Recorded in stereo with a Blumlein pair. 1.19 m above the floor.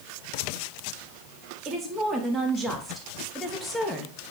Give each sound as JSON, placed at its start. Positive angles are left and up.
{"t": 1.6, "sound": "a woman speaking", "azimuth_deg": -20, "distance_m": 3.0}